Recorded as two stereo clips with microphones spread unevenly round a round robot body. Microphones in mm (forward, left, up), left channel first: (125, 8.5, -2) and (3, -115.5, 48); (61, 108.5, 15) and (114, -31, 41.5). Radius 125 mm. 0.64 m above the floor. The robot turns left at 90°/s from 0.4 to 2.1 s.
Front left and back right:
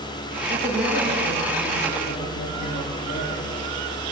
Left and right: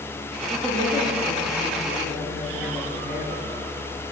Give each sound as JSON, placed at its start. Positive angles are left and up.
{"t": 0.5, "sound": "a woman speaking", "azimuth_deg": -110, "distance_m": 10.0}